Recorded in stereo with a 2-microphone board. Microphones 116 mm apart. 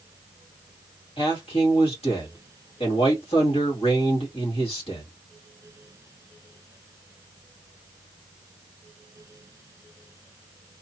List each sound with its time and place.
1.2 s a man speaking: 50° left (ahead or behind), 2 m